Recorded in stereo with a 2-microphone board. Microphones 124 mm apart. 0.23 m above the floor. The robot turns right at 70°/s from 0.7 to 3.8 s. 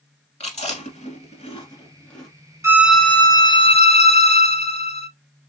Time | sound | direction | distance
0.4 | chewing | 60° left (ahead or behind) | 1.4 m
2.6 | a violin | 25° right | 0.5 m